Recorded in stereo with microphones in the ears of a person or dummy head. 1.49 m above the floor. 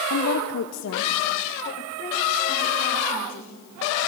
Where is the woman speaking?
65° left (ahead or behind), 0.7 m; by 3.5 s 35° left (ahead or behind), 3 m.